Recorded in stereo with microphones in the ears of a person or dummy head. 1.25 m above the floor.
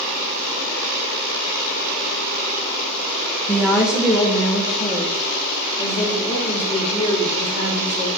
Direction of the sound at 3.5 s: 15° left (ahead or behind).